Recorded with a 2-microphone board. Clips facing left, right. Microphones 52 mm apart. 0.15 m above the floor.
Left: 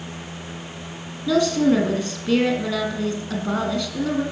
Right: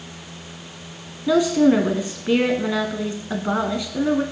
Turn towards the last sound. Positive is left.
turn(degrees=-20)  # may be behind; listen again after turning